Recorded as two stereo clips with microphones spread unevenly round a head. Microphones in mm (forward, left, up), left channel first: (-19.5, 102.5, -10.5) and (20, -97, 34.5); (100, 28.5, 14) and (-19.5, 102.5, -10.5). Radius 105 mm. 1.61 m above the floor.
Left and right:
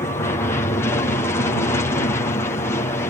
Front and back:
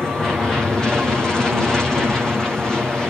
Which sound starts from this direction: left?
An aircraft, at 0.0 s.